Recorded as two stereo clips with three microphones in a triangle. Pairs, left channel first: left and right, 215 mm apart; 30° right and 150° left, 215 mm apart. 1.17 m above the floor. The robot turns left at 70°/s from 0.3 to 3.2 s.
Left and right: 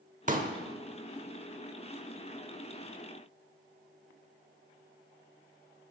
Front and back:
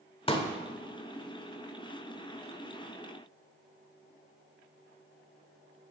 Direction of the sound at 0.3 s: 80° right.